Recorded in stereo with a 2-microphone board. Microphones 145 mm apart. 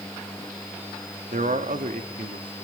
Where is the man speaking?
70° right (ahead or behind), 1.3 m.